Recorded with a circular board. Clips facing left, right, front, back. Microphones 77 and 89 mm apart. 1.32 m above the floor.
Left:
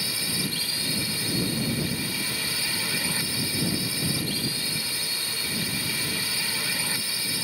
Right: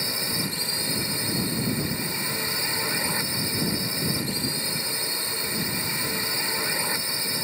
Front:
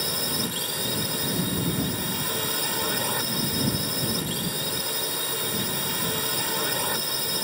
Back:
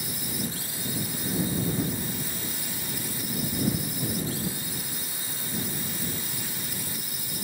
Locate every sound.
0.0 s a drone: 20° right